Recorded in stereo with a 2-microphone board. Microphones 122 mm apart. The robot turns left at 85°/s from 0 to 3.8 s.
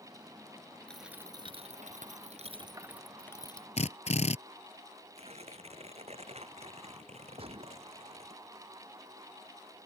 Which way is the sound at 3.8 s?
65° left (ahead or behind).